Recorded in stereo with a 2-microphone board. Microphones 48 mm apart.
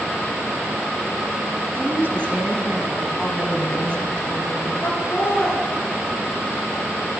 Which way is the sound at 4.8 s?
60° left (ahead or behind).